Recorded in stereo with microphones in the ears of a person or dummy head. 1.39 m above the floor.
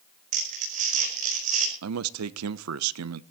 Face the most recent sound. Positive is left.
turn(degrees=-85)